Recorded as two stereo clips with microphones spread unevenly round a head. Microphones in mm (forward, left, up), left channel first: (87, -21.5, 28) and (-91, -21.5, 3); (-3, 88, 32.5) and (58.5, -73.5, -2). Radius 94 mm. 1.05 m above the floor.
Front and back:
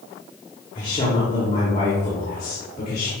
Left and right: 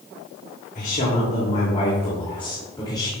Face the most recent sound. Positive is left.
turn(degrees=40)